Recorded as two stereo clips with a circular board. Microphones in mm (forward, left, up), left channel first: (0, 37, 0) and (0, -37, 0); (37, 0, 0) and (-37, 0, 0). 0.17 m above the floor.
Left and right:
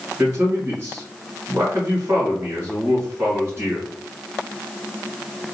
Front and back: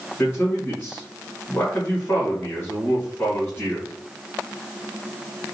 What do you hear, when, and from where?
0.2 s a man speaking: 45° right, 1.9 m